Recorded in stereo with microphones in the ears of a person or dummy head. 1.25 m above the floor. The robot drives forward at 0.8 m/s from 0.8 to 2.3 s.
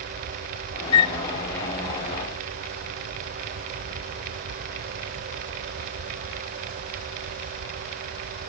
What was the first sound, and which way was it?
A flute, 30° left (ahead or behind).